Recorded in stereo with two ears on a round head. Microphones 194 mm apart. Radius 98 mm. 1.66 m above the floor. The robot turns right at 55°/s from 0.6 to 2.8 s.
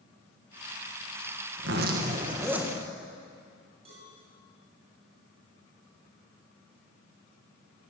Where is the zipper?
60° right, 2 m; by 2.8 s 5° left, 2 m.